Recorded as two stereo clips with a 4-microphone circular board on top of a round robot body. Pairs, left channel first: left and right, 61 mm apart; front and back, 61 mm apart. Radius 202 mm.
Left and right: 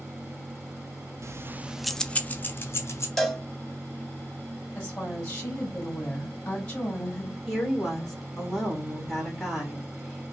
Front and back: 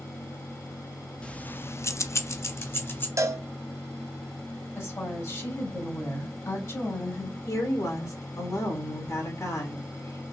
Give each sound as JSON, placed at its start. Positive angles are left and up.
{"t": 1.2, "sound": "keys jangling", "azimuth_deg": -70, "distance_m": 0.7}
{"t": 3.2, "sound": "a cowbell", "azimuth_deg": 175, "distance_m": 1.2}
{"t": 4.8, "sound": "a woman speaking", "azimuth_deg": 20, "distance_m": 2.5}
{"t": 7.5, "sound": "a woman speaking", "azimuth_deg": 5, "distance_m": 2.5}